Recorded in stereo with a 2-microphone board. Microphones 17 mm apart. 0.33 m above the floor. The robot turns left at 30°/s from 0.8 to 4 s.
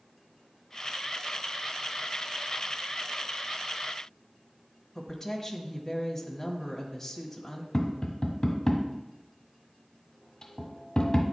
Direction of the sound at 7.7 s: 40° left (ahead or behind).